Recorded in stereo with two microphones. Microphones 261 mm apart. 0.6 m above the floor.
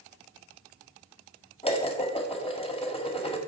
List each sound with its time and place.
1.6 s dishes clattering: 20° left (ahead or behind), 1.9 m